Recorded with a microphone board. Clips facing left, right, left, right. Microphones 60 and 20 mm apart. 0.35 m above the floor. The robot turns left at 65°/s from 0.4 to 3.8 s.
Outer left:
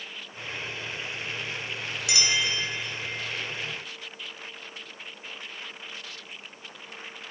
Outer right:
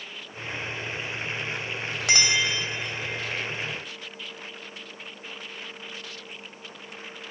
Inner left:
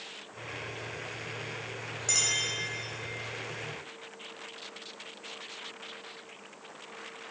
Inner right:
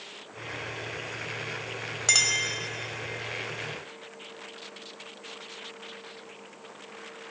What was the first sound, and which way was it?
A clink, 55° right (ahead or behind).